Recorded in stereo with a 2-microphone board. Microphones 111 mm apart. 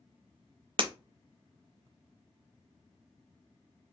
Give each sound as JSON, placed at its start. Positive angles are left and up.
{"t": 0.8, "sound": "breaking glass", "side_deg": -50, "distance_m": 0.6}